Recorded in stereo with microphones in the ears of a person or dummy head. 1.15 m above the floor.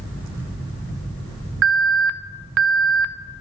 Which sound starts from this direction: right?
An alarm, at 1.6 s.